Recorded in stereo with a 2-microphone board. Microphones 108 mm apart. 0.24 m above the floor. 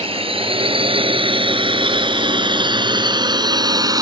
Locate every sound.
0.0 s a drone: 60° right (ahead or behind); by 4.0 s 35° right (ahead or behind)